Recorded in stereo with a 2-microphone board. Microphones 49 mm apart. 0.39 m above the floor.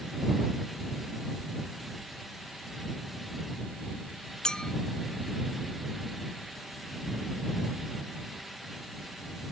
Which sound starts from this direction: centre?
A clink, at 4.4 s.